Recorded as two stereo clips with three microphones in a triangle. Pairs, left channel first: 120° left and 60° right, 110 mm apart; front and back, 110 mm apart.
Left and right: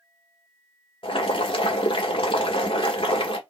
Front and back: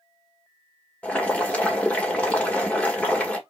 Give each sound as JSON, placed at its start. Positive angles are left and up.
{"t": 1.0, "sound": "boiling", "azimuth_deg": 80, "distance_m": 1.7}